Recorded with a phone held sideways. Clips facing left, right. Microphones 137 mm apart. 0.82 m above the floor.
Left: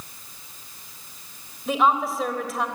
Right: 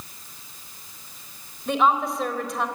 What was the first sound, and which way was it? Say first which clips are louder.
A woman speaking: even; centre (ahead or behind).